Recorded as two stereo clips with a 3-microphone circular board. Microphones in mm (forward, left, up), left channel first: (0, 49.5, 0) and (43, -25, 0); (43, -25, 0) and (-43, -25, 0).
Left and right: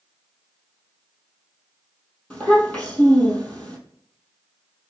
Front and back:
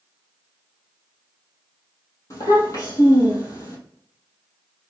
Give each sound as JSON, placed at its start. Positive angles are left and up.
{"t": 2.3, "sound": "a child speaking", "azimuth_deg": 50, "distance_m": 2.0}